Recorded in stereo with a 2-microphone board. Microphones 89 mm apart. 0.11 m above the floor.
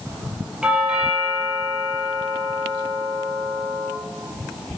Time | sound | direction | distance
0.6 | a doorbell | 10° right (ahead or behind) | 4 m